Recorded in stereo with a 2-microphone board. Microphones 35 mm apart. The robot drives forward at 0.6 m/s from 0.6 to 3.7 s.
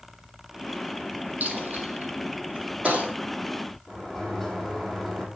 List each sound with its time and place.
1.4 s a dropped coin: 55° right (ahead or behind), 2.5 m; by 3.1 s 45° right (ahead or behind), 3.5 m
3.9 s a sliding door: centre (ahead or behind), 4 m